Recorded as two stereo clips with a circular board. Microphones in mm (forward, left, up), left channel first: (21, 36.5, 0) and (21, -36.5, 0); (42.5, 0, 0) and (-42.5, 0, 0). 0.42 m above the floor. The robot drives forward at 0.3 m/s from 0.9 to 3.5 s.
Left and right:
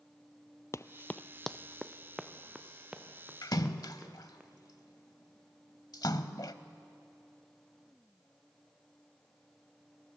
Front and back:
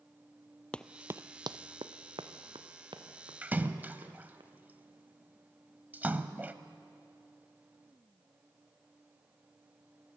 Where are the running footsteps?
70° left, 0.5 m; by 4.4 s 165° right, 4 m.